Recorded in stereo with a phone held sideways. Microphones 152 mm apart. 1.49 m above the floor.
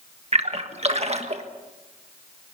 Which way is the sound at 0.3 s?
45° right (ahead or behind).